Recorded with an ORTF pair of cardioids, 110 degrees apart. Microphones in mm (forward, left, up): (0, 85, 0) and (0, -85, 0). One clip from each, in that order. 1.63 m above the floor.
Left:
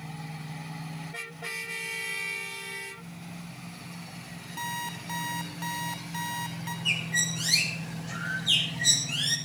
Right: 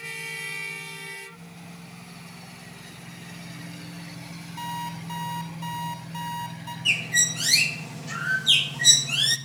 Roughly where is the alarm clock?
Ahead left.